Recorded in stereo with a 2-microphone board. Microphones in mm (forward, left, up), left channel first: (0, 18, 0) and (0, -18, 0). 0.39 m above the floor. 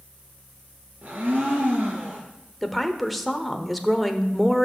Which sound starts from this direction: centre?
A woman speaking, at 2.6 s.